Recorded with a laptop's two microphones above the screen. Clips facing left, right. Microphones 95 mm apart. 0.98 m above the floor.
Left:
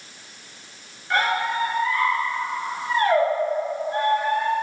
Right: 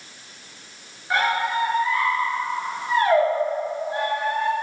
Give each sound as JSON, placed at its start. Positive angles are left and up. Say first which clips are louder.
{"t": 1.1, "sound": "a squeak", "louder": "right 1 dB", "side_deg": -20, "distance_m": 2.0}